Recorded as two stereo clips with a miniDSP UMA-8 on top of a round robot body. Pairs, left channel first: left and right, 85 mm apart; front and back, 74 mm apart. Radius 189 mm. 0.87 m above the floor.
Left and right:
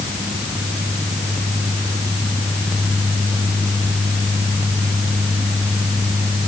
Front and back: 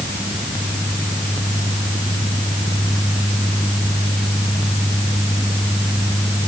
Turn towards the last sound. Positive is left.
No sound to turn to.